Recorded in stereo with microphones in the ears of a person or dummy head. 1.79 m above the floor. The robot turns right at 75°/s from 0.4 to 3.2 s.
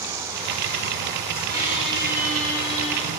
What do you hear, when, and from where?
1.5 s a squeak: 65° right, 1.6 m; by 3.1 s 60° left, 1.6 m